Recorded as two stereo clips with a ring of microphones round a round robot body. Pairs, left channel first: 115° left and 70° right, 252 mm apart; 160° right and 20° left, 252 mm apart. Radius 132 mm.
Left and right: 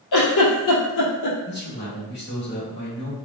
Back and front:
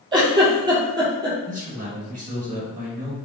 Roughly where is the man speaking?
Left.